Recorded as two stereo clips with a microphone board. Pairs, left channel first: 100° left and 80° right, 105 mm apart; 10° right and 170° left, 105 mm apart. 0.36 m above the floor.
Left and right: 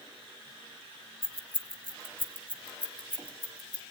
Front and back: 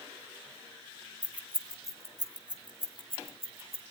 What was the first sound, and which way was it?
Keys jangling, 90° left.